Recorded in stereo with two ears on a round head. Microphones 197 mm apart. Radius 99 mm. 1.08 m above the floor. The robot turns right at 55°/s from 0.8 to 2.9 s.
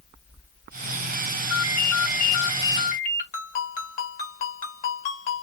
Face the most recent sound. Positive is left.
turn(degrees=40)  # may be behind; listen again after turning